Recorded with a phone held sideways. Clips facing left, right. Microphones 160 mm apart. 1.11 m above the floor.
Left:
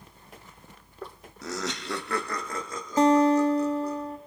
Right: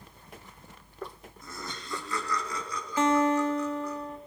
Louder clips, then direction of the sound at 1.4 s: Left 10 dB; 75° left (ahead or behind).